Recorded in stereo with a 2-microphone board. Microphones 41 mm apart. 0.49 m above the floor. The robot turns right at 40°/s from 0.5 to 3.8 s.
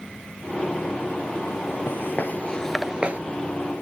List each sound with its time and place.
1.9 s footsteps: 60° left (ahead or behind), 0.9 m; by 3.2 s 40° right (ahead or behind), 0.5 m